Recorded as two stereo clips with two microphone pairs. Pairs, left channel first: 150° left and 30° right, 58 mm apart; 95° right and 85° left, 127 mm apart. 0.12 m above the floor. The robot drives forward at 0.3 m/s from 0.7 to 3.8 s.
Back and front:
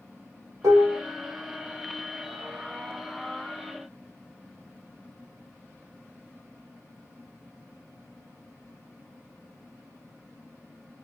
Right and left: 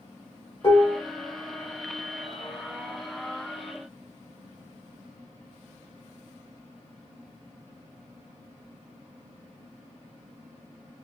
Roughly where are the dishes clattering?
Ahead right.